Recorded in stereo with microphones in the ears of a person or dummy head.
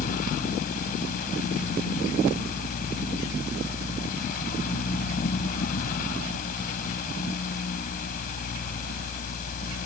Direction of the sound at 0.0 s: 50° left (ahead or behind).